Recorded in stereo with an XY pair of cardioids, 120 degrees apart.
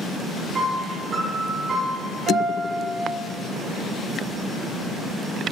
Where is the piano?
40° right, 2.5 m.